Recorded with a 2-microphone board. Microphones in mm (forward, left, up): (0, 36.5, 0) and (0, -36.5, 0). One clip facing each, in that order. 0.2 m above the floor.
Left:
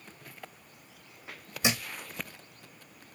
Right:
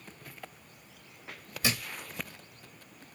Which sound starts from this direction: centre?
A thud, at 1.6 s.